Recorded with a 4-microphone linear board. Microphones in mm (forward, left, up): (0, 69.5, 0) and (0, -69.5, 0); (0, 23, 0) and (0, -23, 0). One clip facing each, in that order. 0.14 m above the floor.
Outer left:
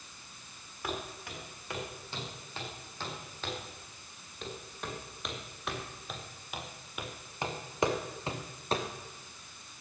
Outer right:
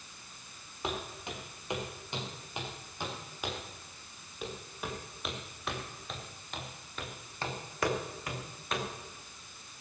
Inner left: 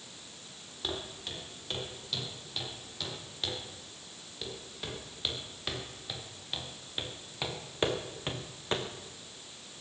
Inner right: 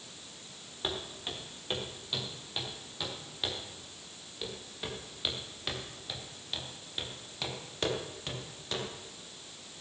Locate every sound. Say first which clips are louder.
0.8 s footsteps: outer right 1 dB, inner right 1 dB; 20° right (ahead or behind), 8 m; by 8.9 s 35° left (ahead or behind), 3.5 m